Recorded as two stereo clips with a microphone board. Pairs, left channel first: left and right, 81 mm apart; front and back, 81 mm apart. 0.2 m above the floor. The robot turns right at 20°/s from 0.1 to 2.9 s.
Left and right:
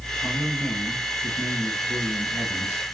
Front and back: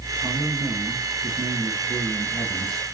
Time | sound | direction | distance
0.2 | a man speaking | 155° left | 3 m